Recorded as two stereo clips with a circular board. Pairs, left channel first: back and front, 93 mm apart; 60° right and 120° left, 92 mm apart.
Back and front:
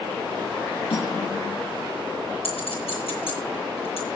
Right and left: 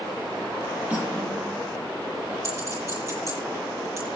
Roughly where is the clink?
Behind.